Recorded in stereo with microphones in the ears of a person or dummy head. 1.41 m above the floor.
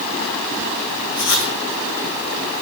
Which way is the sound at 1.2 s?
60° left (ahead or behind).